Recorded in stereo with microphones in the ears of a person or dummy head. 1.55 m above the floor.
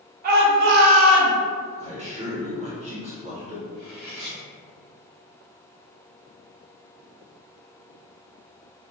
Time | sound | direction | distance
0.2 | a shout | 50° right (ahead or behind) | 1.0 m
1.8 | a man speaking | 30° right (ahead or behind) | 1.4 m
3.7 | cutlery clinking | 5° left (ahead or behind) | 1.6 m